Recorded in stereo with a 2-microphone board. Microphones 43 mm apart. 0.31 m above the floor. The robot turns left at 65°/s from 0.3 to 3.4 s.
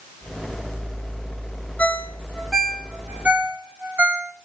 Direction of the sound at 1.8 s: 35° left (ahead or behind).